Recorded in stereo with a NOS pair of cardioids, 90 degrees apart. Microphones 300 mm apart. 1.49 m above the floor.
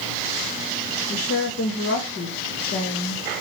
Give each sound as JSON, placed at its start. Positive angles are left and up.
{"t": 1.1, "sound": "a woman speaking", "azimuth_deg": 50, "distance_m": 1.8}